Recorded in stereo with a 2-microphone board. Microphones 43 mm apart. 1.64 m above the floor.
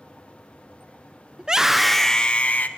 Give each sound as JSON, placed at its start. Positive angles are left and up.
{"t": 1.4, "sound": "a scream", "side_deg": -20, "distance_m": 0.8}